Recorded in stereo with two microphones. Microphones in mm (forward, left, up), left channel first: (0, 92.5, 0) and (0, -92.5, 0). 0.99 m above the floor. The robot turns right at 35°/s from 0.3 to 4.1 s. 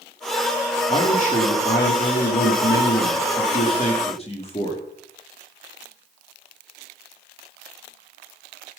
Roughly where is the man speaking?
Ahead left.